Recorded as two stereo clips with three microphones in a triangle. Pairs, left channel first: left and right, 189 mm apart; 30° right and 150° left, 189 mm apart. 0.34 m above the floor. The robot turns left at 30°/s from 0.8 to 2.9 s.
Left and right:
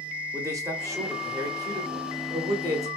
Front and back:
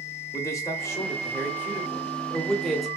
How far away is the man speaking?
About 0.8 m.